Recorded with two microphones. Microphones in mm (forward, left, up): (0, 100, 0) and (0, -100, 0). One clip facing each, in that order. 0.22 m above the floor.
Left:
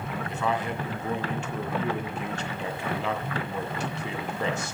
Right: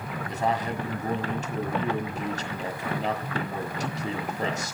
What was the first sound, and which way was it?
A man speaking, 40° right (ahead or behind).